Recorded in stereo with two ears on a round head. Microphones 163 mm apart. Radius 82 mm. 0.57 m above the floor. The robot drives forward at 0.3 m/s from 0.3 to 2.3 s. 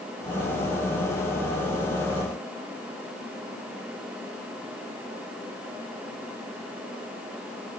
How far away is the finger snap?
No finger snap in this recording.